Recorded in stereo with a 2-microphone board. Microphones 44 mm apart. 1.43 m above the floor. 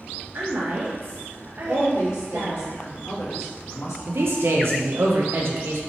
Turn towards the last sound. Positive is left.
turn(degrees=-65)  # may be behind; listen again after turning